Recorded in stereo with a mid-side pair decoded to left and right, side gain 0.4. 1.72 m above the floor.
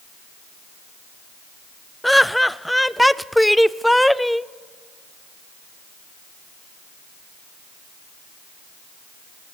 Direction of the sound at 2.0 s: 5° left.